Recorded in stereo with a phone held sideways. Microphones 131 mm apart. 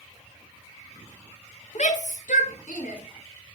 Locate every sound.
1.8 s a shout: 65° left (ahead or behind), 1.2 m; by 3.0 s 85° left, 2.5 m